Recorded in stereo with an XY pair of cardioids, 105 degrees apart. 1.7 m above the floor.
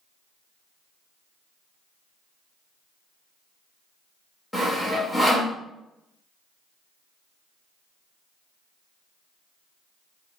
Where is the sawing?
10° left, 1.1 m.